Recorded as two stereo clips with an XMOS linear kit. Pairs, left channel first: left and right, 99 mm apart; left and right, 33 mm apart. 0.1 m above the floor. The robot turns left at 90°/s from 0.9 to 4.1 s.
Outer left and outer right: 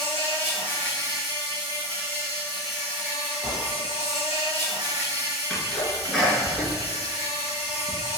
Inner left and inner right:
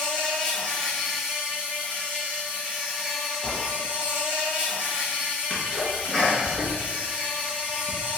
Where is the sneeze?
5° left (ahead or behind), 1.2 m.